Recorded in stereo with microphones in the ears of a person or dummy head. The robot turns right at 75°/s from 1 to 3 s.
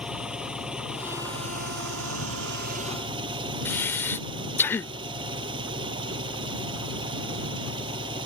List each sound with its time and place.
0.0 s an engine running: 175° right; by 8.3 s 25° right
3.6 s breathing: 10° left (ahead or behind)